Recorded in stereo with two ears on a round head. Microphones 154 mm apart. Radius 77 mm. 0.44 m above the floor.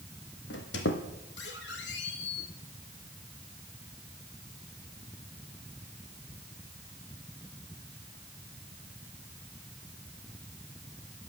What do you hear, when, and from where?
0.5 s a squeak: 80° left, 2.5 m